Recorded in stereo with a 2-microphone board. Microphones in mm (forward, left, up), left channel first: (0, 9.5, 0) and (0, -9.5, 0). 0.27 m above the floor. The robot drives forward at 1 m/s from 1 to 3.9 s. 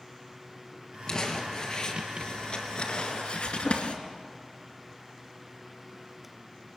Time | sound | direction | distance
1.1 | crumpling | 35° left (ahead or behind) | 4.5 m